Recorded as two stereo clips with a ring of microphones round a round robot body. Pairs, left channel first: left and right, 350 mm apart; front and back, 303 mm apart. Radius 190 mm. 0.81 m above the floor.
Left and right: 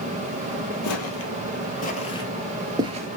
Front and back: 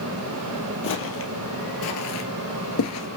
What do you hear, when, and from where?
0.8 s footsteps: 45° left, 1.7 m; by 3.1 s 30° right, 1.0 m